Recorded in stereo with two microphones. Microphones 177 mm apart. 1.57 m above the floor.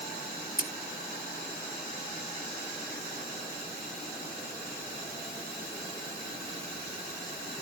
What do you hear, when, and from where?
0.6 s scissors: 60° left (ahead or behind)